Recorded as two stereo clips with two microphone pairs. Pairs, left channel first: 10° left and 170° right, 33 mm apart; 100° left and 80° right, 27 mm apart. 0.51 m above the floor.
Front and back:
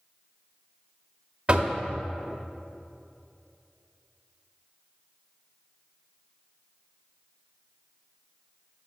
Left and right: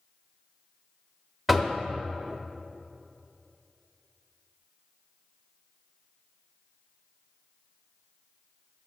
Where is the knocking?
165° right, 0.7 m.